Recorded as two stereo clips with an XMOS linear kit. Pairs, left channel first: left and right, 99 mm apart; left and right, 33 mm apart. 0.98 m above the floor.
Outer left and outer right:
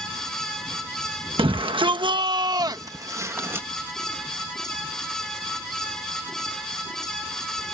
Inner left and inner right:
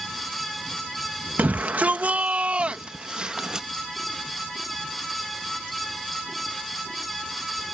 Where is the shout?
60° right (ahead or behind); by 3.7 s 25° right (ahead or behind).